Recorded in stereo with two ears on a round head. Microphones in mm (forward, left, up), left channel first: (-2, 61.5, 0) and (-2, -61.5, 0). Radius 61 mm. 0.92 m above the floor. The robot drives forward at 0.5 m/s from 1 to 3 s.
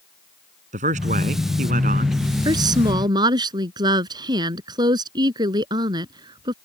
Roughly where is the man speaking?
Right.